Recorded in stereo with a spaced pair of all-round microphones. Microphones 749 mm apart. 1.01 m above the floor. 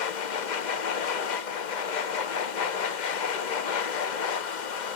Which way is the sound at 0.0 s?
75° left (ahead or behind).